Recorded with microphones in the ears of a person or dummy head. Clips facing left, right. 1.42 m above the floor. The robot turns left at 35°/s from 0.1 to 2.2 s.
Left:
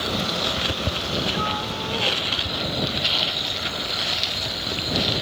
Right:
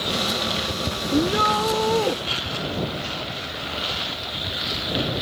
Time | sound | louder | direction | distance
1.1 | a shout | right 9 dB | 90° right | ?